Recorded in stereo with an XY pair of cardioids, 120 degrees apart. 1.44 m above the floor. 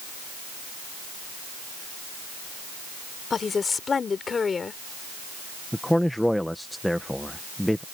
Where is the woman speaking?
30° left.